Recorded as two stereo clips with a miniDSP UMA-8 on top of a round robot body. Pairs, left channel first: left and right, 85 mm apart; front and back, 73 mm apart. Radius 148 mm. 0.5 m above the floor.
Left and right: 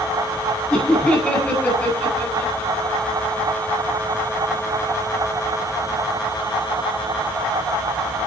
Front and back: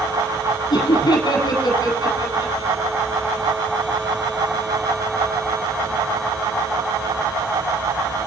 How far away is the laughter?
About 4.5 m.